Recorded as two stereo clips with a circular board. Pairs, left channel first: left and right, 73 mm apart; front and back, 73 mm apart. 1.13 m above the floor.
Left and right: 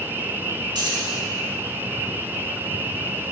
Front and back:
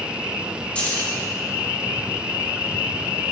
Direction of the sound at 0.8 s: 70° right.